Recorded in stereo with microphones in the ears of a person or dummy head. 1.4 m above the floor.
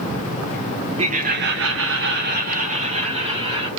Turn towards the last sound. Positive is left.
turn(degrees=-30)  # may be behind; listen again after turning